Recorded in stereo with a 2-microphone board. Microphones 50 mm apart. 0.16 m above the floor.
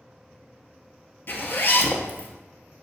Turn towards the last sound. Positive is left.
turn(degrees=45)  # may be behind; listen again after turning